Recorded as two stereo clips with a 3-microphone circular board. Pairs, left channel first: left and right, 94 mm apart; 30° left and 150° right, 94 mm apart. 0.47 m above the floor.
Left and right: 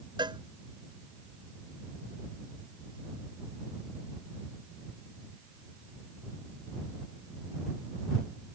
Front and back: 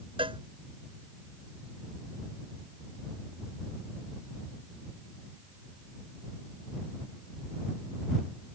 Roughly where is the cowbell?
Behind right.